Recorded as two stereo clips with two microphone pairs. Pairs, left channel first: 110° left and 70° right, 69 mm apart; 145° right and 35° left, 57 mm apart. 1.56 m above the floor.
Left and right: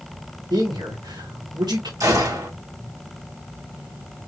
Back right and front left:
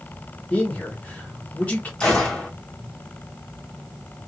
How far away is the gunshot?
About 1.7 m.